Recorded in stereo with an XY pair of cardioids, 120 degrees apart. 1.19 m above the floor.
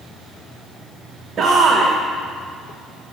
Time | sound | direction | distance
1.4 | a shout | 40° right | 0.8 m